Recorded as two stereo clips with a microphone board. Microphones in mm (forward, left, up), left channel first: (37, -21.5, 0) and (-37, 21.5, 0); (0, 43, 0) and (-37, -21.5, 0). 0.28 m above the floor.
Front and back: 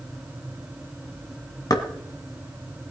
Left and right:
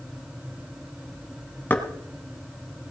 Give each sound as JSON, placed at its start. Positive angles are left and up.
{"t": 1.7, "sound": "knocking", "azimuth_deg": 0, "distance_m": 1.7}